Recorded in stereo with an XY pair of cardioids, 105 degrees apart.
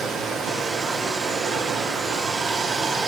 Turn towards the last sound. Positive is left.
turn(degrees=-55)